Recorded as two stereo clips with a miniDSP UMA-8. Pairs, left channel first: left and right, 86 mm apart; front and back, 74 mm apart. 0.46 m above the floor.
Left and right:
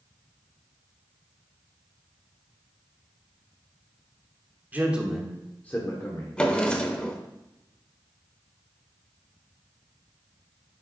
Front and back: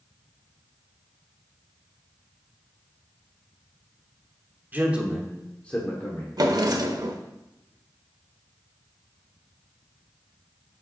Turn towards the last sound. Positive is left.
turn(degrees=165)